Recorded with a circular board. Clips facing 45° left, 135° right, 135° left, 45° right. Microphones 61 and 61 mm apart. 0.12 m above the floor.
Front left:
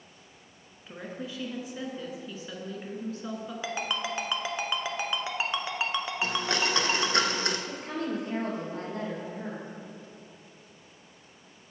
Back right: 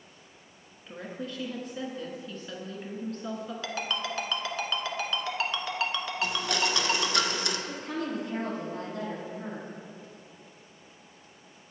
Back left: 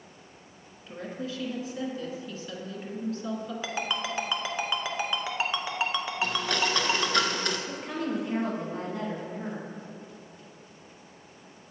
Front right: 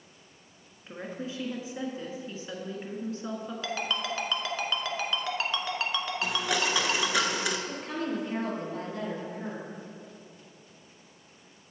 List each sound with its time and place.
0.9 s a woman speaking: 30° right, 1.2 m
3.6 s a ringtone: 85° left, 0.7 m
6.2 s a blender: 30° left, 0.7 m
7.7 s a woman speaking: 55° left, 2.5 m